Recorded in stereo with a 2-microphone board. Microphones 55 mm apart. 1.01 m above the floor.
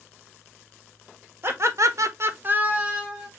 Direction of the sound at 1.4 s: 50° right (ahead or behind).